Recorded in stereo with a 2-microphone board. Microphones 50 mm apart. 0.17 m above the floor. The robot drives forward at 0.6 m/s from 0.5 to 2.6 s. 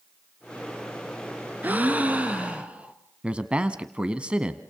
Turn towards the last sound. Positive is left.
turn(degrees=-20)  # may be behind; listen again after turning